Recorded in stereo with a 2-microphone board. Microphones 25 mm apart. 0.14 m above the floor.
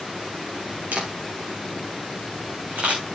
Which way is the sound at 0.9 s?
60° right (ahead or behind).